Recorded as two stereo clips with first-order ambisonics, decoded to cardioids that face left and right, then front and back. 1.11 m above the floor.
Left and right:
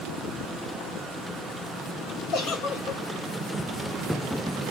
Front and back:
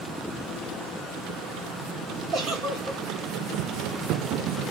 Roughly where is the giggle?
Behind left.